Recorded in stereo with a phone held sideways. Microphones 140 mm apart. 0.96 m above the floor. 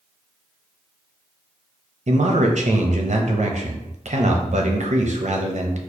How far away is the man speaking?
About 0.6 m.